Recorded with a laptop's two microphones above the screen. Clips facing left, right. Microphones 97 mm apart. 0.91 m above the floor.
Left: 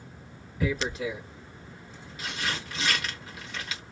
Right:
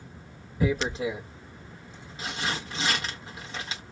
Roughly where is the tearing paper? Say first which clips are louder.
Right 3 dB; right.